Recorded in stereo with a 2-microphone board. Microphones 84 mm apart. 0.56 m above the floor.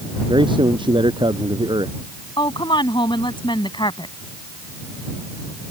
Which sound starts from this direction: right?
A man speaking, at 0.3 s.